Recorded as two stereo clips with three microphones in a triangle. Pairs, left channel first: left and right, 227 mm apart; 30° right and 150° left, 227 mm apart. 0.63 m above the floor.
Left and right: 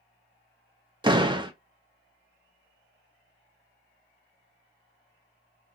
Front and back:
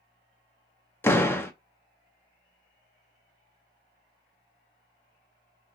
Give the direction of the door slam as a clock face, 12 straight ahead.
3 o'clock.